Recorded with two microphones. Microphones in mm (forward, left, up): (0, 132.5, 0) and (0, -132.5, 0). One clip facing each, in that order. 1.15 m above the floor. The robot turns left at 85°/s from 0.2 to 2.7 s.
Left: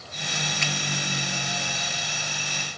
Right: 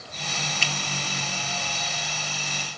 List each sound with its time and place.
0.6 s a finger snap: 35° right (ahead or behind), 0.7 m; by 0.7 s 45° right (ahead or behind), 0.7 m